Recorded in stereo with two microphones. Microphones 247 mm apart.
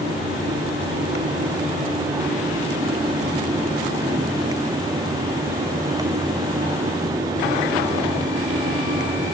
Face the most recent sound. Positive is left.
No sound to turn to.